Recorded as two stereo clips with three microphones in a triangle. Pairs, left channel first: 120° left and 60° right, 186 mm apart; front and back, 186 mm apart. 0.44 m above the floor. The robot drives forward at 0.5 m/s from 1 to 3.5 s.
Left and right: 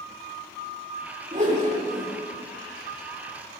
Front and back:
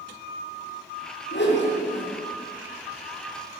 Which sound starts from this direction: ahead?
A whoosh, at 1.3 s.